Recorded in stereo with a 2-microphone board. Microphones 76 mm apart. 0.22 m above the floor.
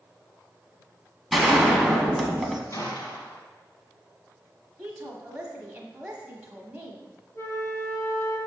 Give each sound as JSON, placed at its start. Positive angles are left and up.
{"t": 1.3, "sound": "a gunshot", "side_deg": 0, "distance_m": 1.0}
{"t": 2.7, "sound": "a gunshot", "side_deg": 50, "distance_m": 2.0}
{"t": 4.8, "sound": "a woman speaking", "side_deg": -15, "distance_m": 1.0}
{"t": 7.3, "sound": "a flute", "side_deg": 40, "distance_m": 1.5}